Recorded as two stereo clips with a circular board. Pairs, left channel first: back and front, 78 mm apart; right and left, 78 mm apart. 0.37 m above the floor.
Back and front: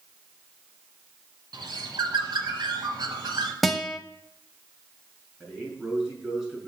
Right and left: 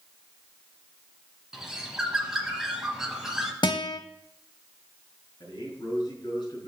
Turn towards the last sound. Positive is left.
turn(degrees=-75)